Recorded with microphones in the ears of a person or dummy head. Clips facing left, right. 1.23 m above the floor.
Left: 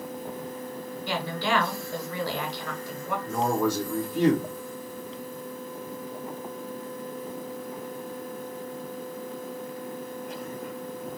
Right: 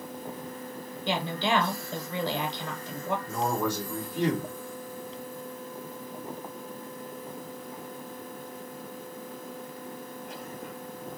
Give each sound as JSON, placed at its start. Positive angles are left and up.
{"t": 1.1, "sound": "a woman speaking", "side_deg": -20, "distance_m": 0.8}
{"t": 3.3, "sound": "a man speaking", "side_deg": 50, "distance_m": 1.8}